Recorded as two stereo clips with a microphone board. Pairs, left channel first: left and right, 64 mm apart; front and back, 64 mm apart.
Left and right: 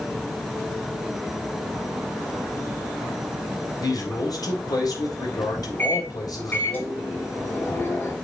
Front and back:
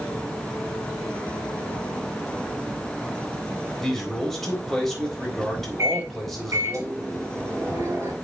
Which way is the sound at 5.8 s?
145° left.